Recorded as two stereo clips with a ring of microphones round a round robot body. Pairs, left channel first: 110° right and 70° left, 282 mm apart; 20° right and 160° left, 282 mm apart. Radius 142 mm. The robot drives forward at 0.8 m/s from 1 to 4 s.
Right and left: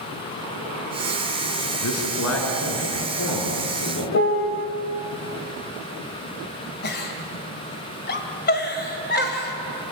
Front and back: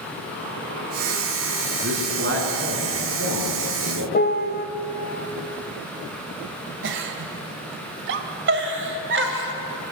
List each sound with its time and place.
1.8 s a man speaking: 150° right, 5 m; by 4.0 s 155° right, 6.5 m
4.1 s a piano: 75° right, 1.3 m
6.8 s a giggle: 160° right, 2 m